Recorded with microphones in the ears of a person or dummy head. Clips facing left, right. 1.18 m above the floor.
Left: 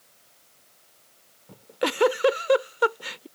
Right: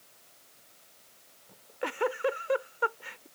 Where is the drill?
I don't hear a drill.